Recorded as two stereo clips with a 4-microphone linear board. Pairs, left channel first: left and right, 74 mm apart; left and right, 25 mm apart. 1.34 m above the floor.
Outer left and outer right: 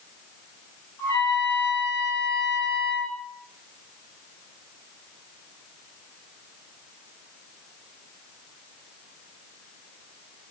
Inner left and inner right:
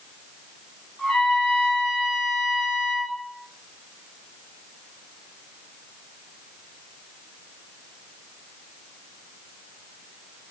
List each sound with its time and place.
1.0 s a trumpet: 55° left (ahead or behind), 1.6 m